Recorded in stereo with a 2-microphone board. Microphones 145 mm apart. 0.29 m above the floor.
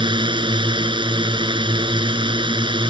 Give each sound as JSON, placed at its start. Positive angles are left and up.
{"t": 0.0, "sound": "a drone", "side_deg": -35}